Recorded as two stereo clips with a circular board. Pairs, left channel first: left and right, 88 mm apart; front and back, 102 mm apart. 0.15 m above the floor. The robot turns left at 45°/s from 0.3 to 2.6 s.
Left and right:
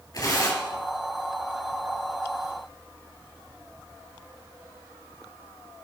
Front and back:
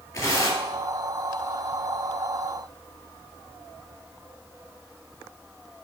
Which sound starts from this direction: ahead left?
Tearing paper, at 0.1 s.